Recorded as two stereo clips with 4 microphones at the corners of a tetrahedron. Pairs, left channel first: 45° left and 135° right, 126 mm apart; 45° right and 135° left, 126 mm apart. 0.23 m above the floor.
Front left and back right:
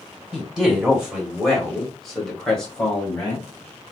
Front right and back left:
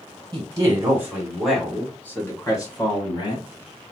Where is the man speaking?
145° left, 1.6 m; by 3.5 s 35° right, 1.8 m.